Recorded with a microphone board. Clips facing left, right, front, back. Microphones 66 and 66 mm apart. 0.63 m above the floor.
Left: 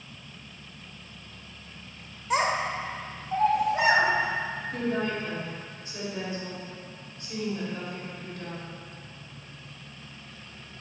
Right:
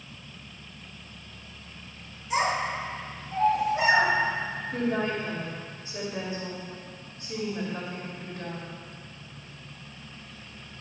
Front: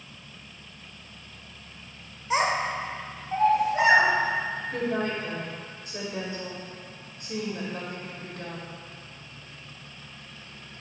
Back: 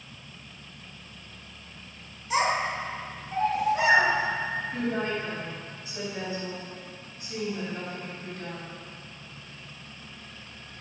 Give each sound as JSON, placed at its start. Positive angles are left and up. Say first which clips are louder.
{"t": 2.3, "sound": "a child speaking", "louder": "left 1 dB, front 1 dB", "azimuth_deg": 60, "distance_m": 1.3}
{"t": 4.7, "sound": "a woman speaking", "louder": "right 2 dB, front 3 dB", "azimuth_deg": -25, "distance_m": 2.0}